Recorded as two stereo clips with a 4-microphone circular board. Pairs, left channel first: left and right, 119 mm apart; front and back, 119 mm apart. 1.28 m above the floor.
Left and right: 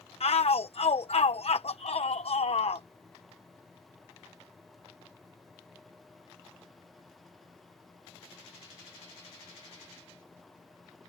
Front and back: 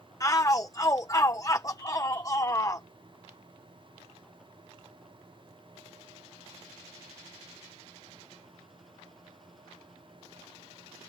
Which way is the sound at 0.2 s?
60° left.